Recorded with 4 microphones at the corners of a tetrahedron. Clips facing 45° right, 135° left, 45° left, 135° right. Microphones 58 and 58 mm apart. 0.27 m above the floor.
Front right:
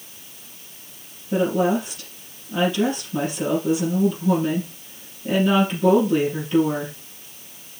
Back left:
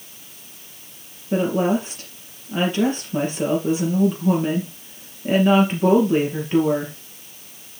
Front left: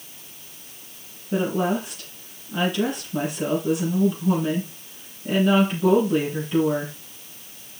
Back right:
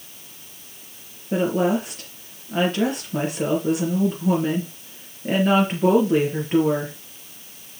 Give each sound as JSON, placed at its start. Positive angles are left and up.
{"t": 1.3, "sound": "a woman speaking", "azimuth_deg": -170, "distance_m": 5.0}